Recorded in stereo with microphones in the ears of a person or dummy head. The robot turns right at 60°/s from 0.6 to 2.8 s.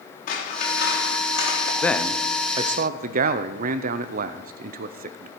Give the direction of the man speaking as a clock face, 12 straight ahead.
6 o'clock.